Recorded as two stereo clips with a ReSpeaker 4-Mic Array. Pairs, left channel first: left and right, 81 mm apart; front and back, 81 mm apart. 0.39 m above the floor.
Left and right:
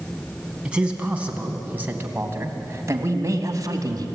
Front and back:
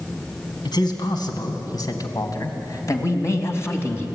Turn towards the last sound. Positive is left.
turn(degrees=-60)